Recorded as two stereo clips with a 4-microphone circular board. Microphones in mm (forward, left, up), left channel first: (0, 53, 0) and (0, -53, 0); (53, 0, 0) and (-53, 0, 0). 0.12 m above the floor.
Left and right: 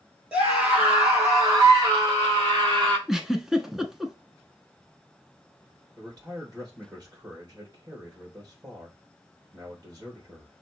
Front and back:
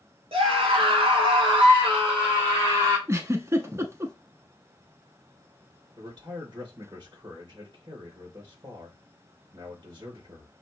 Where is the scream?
165° right, 2.5 m; by 3.0 s 130° right, 3 m.